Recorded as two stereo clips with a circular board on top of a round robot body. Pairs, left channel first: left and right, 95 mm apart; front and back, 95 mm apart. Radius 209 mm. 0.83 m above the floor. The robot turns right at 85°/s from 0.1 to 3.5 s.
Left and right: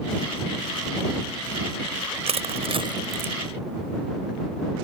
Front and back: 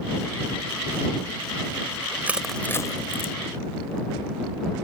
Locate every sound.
2.3 s crushing: 105° right; by 3.3 s 15° right